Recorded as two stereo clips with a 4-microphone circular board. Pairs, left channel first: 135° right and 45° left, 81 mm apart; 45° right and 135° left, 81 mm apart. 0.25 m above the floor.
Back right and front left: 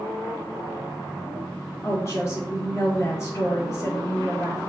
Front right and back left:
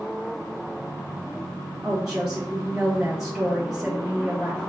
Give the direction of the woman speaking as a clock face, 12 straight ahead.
5 o'clock.